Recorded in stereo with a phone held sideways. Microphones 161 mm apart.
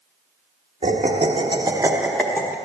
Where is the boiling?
No boiling in this recording.